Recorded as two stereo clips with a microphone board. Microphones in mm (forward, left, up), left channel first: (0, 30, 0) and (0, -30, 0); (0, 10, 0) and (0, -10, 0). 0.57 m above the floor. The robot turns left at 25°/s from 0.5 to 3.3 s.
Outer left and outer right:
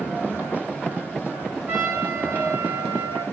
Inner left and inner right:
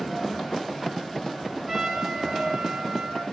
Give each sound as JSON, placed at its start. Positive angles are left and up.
{"t": 1.7, "sound": "a trumpet", "azimuth_deg": -25, "distance_m": 7.5}